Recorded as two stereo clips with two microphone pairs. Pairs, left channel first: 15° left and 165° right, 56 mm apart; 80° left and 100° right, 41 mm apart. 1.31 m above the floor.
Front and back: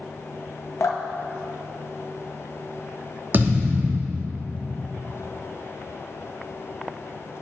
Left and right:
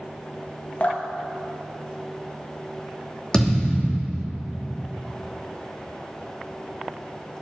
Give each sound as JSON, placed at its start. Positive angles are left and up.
{"t": 0.8, "sound": "dripping", "azimuth_deg": 35, "distance_m": 0.9}
{"t": 3.3, "sound": "a thud", "azimuth_deg": 150, "distance_m": 2.5}